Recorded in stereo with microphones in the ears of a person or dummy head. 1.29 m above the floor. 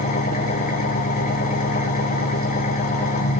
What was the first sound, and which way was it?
An engine running, 40° left (ahead or behind).